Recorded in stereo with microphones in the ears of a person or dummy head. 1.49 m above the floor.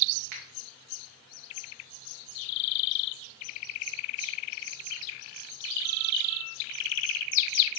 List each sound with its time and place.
0.3 s a finger snap: 55° right (ahead or behind), 0.9 m